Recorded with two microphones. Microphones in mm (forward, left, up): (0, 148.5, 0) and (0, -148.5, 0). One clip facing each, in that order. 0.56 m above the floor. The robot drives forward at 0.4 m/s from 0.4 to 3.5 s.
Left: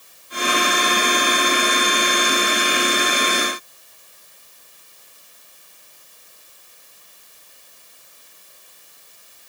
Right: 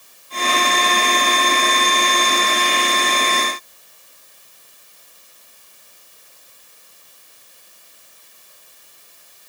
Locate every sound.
Only background noise.